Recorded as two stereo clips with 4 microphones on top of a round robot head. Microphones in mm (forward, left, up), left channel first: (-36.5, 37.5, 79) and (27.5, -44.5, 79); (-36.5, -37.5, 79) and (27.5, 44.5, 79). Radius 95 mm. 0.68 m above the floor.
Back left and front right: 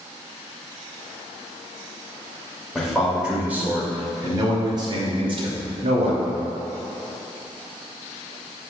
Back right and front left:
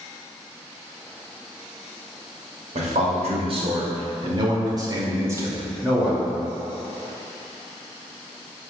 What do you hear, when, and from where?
2.8 s a man speaking: 35° left, 2.5 m; by 6.3 s 30° right, 2.5 m